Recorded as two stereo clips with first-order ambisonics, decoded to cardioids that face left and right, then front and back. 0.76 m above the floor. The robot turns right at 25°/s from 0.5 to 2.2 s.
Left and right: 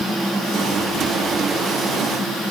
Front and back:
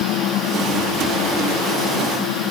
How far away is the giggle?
No giggle in this recording.